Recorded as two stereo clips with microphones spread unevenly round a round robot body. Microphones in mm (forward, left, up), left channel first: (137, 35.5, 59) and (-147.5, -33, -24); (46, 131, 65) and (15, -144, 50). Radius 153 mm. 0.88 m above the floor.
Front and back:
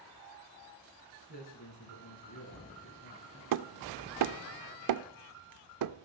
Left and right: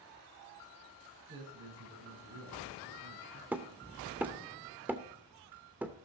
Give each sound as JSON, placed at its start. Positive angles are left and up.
{"t": 1.3, "sound": "a man speaking", "azimuth_deg": -45, "distance_m": 8.5}
{"t": 3.5, "sound": "hammering", "azimuth_deg": 180, "distance_m": 0.6}